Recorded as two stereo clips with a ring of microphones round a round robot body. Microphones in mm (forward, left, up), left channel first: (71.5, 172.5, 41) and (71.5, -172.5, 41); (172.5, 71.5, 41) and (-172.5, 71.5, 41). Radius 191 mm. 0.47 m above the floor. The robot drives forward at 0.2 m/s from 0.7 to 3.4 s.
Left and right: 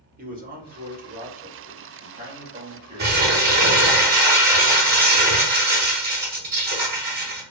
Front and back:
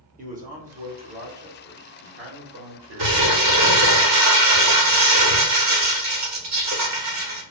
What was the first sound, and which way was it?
A man speaking, 130° right.